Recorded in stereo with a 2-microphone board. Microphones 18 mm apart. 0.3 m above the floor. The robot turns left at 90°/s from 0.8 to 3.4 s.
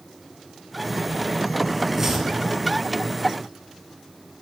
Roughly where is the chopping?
Right.